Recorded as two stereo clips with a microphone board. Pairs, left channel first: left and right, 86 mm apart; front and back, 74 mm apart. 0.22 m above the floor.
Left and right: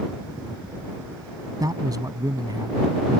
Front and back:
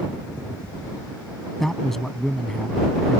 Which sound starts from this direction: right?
A man speaking, at 1.6 s.